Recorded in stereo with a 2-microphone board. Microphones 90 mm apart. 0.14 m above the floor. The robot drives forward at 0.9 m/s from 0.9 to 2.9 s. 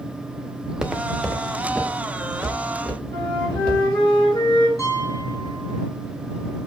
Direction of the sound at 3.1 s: 70° left (ahead or behind).